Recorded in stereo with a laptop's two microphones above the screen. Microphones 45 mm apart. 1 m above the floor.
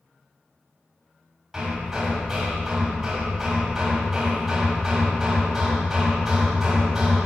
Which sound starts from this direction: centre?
Hammering, at 1.5 s.